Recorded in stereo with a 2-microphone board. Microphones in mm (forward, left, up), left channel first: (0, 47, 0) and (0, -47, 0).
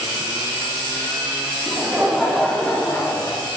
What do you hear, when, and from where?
1.7 s laughter: 20° right (ahead or behind), 1.4 m; by 3.5 s 30° left (ahead or behind), 1.7 m